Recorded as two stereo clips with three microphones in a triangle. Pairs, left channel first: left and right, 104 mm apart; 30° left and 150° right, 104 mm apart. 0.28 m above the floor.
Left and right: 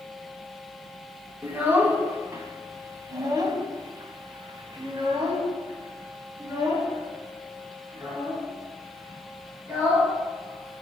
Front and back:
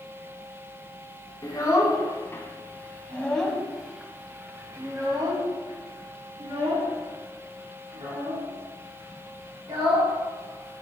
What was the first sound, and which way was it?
A child speaking, 20° right.